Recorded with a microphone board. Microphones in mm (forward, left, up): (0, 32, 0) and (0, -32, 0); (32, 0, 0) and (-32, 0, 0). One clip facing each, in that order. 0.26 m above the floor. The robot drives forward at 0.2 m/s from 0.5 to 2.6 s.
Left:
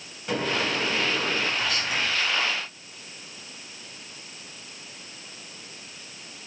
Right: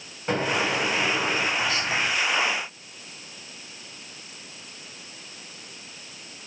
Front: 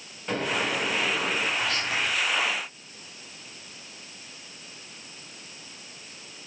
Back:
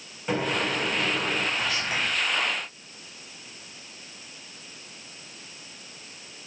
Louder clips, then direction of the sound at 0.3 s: Right 2 dB, back 1 dB; 105° right.